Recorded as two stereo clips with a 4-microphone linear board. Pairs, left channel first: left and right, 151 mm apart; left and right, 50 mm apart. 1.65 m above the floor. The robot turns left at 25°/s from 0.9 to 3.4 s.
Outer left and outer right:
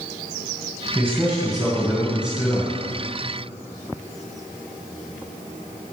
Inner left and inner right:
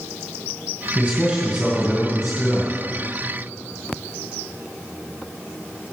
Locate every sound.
0.9 s a man speaking: 165° right, 2.5 m; by 2.7 s 150° left, 2.5 m